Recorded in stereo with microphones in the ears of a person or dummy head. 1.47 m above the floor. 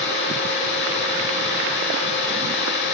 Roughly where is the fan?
Left.